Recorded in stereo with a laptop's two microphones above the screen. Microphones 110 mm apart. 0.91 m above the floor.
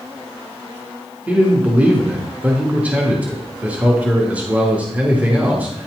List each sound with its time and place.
1.3 s a man speaking: 15° right (ahead or behind), 1.8 m